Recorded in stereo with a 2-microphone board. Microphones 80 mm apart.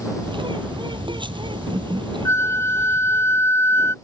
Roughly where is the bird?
Right.